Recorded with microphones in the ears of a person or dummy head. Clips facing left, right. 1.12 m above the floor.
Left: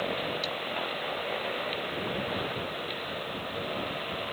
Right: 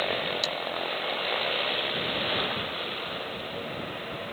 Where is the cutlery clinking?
45° right (ahead or behind).